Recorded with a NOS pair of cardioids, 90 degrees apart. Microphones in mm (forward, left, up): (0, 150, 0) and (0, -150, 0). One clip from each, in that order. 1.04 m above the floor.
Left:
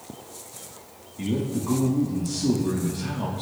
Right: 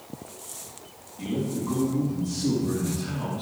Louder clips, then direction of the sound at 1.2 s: Left 2 dB; 35° left.